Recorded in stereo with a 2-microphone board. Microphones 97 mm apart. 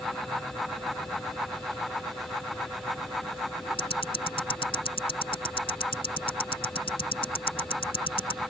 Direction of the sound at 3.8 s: 70° left (ahead or behind).